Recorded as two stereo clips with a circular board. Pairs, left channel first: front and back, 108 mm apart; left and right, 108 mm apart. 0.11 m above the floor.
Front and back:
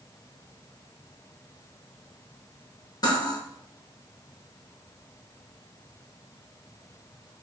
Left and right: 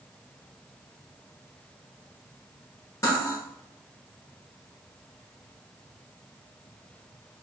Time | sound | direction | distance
3.0 | cutlery clinking | 40° left | 1.4 m